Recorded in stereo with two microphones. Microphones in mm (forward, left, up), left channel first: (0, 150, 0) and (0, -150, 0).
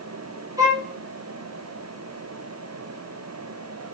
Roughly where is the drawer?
I don't hear a drawer.